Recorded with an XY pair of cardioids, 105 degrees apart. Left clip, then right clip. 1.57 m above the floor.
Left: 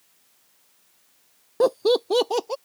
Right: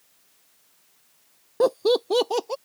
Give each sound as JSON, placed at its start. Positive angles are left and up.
{"t": 1.6, "sound": "laughter", "azimuth_deg": 5}